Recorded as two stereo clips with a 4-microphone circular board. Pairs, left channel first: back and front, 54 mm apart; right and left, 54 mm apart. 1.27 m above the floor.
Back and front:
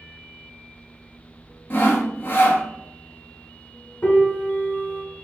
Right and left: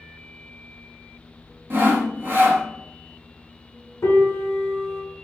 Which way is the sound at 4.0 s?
125° right.